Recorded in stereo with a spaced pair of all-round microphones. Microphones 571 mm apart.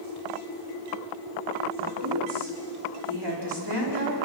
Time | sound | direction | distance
1.8 | a woman speaking | 45° right (ahead or behind) | 4.5 m